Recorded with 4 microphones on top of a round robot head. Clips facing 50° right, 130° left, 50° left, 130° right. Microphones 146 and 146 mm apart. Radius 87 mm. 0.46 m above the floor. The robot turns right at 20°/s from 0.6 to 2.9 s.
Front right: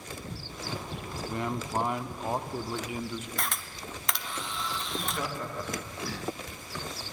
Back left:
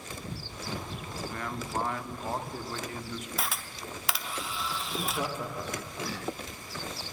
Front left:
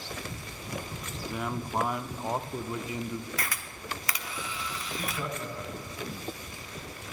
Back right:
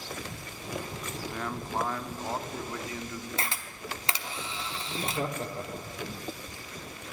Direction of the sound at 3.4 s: 145° right.